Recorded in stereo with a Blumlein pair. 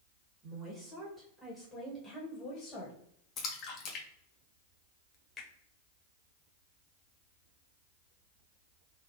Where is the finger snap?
10° left, 1.3 m.